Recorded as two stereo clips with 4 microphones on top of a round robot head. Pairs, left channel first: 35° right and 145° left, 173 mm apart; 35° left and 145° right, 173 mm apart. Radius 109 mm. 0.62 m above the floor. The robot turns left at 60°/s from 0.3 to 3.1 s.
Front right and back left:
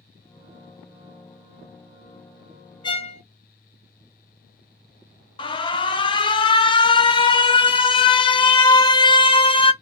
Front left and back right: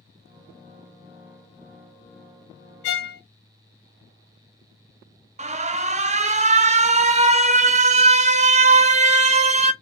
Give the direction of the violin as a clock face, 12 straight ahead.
11 o'clock.